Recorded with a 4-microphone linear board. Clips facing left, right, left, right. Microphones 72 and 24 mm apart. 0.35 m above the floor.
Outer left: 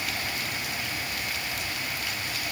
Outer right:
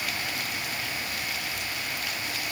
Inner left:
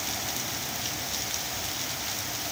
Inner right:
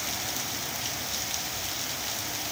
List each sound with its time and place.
Only background noise.